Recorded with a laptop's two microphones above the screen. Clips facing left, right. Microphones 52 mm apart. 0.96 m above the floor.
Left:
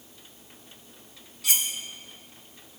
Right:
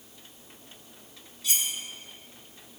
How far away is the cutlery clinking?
About 1.2 m.